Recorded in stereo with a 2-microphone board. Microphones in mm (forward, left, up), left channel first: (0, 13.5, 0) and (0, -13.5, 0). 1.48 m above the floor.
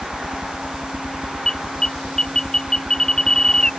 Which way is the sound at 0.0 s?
25° right (ahead or behind).